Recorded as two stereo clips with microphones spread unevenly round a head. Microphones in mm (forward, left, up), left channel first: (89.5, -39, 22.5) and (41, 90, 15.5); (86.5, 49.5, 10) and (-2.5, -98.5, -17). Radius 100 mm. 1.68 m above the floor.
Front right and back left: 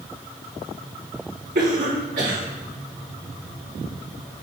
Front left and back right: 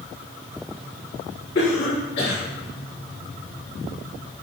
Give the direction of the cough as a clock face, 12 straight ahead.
9 o'clock.